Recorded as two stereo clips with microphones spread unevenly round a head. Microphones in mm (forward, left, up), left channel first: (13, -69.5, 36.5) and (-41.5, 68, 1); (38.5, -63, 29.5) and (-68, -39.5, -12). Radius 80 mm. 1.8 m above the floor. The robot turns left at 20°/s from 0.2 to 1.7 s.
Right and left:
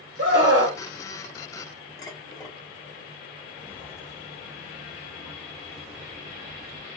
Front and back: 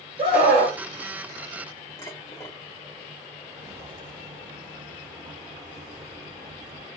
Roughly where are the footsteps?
Behind right.